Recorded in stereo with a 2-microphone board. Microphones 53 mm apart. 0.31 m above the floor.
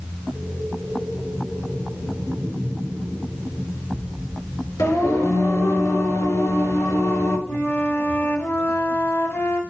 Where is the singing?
75° left (ahead or behind), 6 m.